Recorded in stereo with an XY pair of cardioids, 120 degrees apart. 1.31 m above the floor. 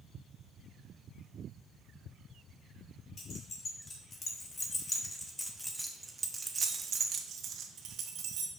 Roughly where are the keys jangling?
Ahead left.